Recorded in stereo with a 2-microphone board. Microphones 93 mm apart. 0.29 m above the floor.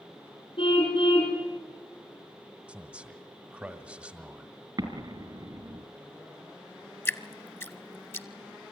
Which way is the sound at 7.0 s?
30° left (ahead or behind).